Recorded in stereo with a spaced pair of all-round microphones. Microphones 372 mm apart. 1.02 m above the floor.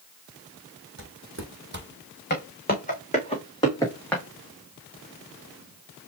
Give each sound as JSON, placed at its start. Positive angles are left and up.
{"t": 1.0, "sound": "footsteps", "side_deg": -40, "distance_m": 1.8}
{"t": 2.3, "sound": "footsteps", "side_deg": 30, "distance_m": 2.5}